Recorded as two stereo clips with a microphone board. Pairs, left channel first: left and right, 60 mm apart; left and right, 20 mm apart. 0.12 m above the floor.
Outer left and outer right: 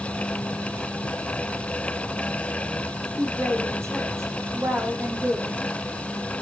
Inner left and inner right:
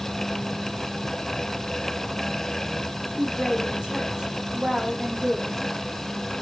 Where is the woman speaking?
50° right (ahead or behind), 8 m.